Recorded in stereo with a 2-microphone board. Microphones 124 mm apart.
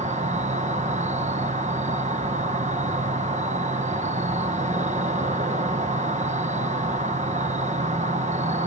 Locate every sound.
0.0 s an insect: 80° right, 1.4 m